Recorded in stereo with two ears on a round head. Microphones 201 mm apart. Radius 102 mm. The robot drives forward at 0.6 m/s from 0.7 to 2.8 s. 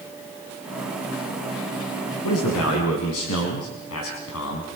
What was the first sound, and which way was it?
A man speaking, 75° left (ahead or behind).